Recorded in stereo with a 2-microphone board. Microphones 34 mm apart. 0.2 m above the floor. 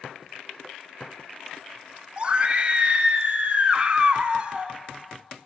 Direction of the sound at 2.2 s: 30° right (ahead or behind).